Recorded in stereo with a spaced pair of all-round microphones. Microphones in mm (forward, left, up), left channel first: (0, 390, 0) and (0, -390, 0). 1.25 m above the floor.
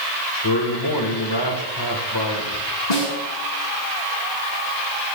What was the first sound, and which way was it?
A man speaking, 35° left (ahead or behind).